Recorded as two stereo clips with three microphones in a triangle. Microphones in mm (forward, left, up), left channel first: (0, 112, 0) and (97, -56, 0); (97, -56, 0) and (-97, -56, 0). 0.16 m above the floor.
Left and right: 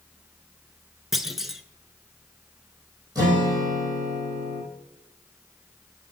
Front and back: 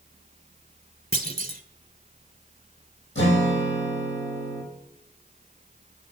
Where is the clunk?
150° right, 0.7 m.